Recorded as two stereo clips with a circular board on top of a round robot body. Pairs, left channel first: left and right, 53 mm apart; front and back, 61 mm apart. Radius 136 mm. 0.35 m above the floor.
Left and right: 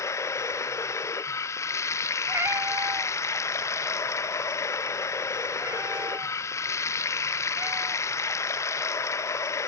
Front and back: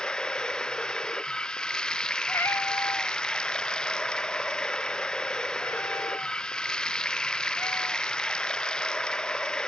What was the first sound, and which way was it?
Running water, 75° left.